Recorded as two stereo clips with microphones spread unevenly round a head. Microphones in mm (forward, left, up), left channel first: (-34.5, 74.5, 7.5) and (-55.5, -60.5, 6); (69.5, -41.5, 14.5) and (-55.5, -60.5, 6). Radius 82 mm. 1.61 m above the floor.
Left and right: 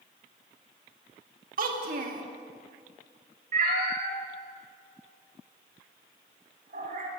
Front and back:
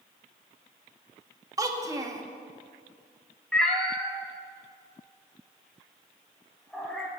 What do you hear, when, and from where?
1.6 s a child speaking: 110° right, 1.9 m
3.5 s a cat meowing: 75° right, 2.5 m